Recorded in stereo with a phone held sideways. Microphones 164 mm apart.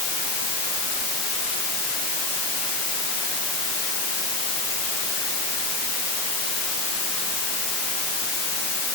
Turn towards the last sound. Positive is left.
No sound to turn to.